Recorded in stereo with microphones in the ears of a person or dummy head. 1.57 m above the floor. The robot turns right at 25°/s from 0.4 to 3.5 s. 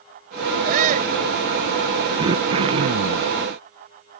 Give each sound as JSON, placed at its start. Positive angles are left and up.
{"t": 0.7, "sound": "a shout", "side_deg": -55}
{"t": 2.2, "sound": "throat clearing", "side_deg": -20}